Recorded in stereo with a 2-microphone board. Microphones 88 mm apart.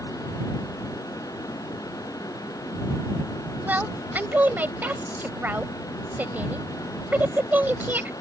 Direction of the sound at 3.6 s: 20° right (ahead or behind).